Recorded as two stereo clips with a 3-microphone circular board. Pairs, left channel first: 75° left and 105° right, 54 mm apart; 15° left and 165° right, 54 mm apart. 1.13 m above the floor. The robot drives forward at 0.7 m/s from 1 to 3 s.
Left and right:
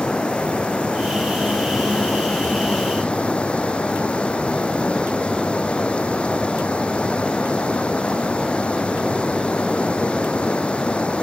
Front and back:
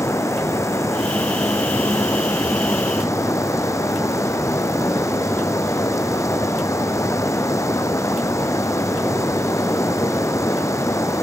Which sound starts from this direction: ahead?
Running water, at 0.0 s.